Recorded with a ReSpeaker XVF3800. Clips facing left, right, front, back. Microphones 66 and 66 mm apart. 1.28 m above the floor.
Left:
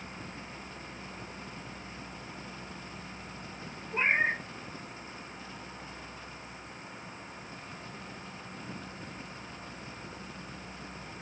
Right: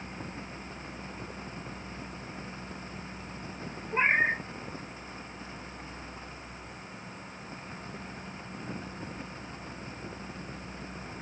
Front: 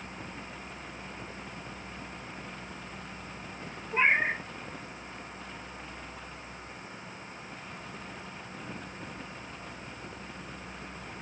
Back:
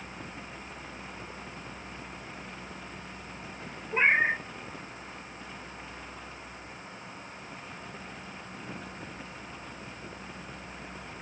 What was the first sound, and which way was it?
A cat meowing, 120° right.